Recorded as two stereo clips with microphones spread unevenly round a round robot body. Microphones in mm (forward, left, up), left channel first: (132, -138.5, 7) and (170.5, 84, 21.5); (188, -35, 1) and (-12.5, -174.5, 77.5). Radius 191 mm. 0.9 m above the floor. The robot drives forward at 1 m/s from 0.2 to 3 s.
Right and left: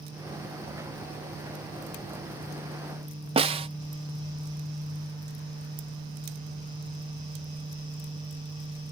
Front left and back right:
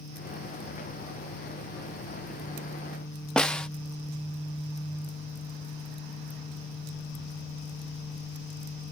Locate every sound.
3.4 s a snare drum: 55° left